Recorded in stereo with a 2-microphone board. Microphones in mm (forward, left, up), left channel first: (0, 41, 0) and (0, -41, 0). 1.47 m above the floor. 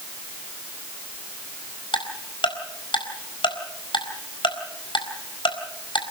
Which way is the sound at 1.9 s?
80° left.